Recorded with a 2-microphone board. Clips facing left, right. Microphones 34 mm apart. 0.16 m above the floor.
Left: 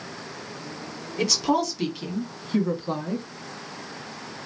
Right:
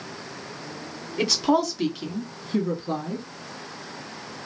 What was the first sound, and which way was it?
A woman speaking, 20° right (ahead or behind).